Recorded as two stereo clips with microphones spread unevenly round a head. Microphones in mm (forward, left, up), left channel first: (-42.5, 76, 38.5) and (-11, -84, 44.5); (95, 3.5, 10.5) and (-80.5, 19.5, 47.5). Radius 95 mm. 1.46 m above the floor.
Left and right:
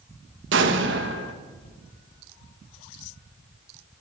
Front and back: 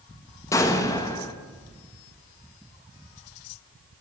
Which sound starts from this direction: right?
An explosion, at 0.5 s.